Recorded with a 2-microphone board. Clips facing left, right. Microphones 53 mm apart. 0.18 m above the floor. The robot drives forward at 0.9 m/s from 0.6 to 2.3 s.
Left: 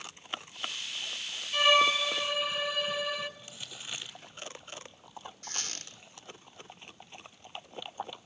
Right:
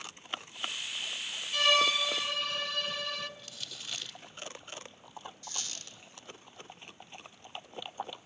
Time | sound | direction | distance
1.5 | a violin | 20° left (ahead or behind) | 0.6 m
3.4 | crumpling | 20° left (ahead or behind) | 1.1 m
5.4 | a squeak | 50° left (ahead or behind) | 1.2 m